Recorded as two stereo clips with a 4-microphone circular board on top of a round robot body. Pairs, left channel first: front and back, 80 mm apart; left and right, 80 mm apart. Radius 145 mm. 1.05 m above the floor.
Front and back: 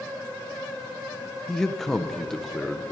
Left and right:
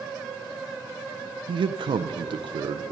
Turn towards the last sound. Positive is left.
turn(degrees=-85)